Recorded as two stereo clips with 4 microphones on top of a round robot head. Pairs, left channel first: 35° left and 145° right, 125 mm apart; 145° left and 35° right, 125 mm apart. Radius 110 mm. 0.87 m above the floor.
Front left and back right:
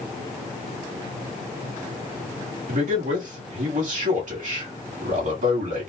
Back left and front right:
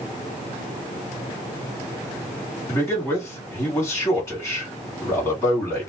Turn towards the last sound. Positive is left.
turn(degrees=-150)